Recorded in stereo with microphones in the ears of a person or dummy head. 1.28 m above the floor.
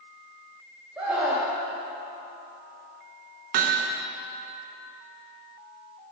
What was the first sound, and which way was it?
A scream, 10° right (ahead or behind).